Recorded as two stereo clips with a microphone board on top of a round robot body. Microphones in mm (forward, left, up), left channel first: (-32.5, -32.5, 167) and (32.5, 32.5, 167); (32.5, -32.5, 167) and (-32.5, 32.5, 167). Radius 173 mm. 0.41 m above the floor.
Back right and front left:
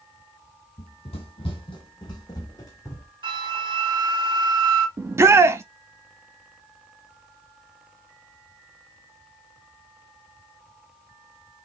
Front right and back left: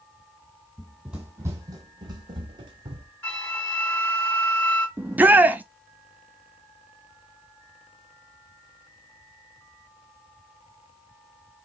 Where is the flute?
30° left, 3 m.